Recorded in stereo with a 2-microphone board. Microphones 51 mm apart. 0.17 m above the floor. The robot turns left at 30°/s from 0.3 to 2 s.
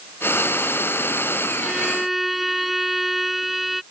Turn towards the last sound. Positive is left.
turn(degrees=-5)  # may be behind; listen again after turning